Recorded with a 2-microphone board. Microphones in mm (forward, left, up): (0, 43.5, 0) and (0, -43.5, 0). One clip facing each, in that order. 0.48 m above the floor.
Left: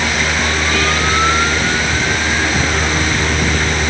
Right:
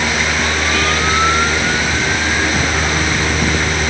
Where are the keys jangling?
I don't hear keys jangling.